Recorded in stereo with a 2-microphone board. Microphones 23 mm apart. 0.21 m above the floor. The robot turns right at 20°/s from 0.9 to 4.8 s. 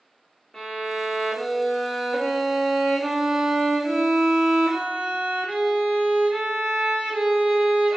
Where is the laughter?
I don't hear laughter.